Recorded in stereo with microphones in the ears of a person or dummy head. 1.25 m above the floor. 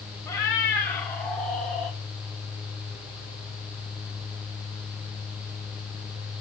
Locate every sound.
0.3 s a cat meowing: 20° left (ahead or behind), 2.5 m; by 2.0 s 5° left (ahead or behind), 3 m